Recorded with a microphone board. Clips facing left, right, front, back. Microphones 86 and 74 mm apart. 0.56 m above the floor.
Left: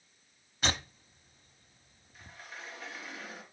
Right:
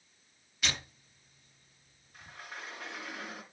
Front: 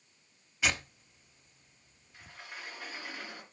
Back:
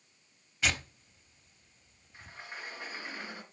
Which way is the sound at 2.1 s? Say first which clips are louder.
Right 2 dB, back 2 dB; 115° right.